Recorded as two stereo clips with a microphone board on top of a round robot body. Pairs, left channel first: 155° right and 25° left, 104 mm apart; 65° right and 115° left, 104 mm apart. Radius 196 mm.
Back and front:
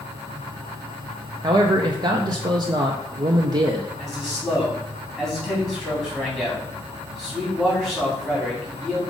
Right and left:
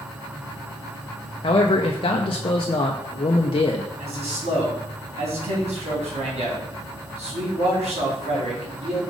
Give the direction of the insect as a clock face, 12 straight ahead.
10 o'clock.